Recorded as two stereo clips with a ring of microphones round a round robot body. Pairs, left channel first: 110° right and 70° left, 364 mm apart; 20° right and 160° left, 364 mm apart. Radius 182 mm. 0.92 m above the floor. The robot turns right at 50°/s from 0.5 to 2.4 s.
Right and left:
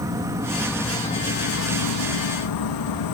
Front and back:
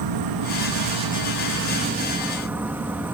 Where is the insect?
145° left; by 3.1 s 120° right.